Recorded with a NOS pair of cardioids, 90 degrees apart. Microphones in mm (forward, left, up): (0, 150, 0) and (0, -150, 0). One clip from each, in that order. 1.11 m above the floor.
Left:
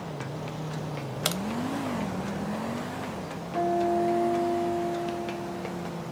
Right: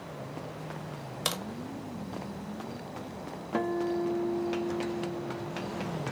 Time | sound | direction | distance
1.2 | a crack | 10° left | 0.6 m
3.5 | a guitar | 40° right | 0.6 m